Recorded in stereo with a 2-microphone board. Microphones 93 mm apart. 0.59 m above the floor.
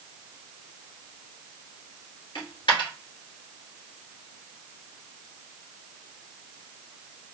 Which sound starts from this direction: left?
A dropped coin, at 2.4 s.